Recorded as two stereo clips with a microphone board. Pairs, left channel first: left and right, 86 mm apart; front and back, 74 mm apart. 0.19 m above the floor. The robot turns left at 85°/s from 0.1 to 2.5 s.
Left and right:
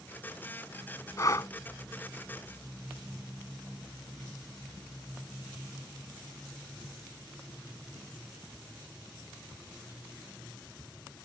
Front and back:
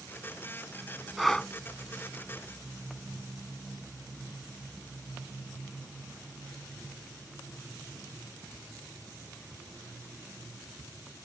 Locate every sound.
1.2 s breathing: 95° left; by 1.5 s 65° left